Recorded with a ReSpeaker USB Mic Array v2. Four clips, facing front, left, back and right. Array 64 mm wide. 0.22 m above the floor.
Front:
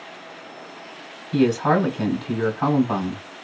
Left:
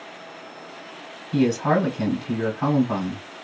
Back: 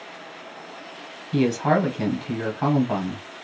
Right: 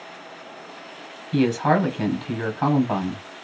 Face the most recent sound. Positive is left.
turn(degrees=-85)